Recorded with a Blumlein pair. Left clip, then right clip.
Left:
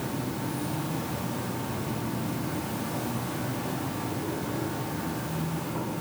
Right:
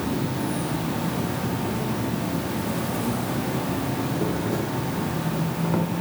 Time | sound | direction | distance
0.0 | an insect | 45° right | 0.9 m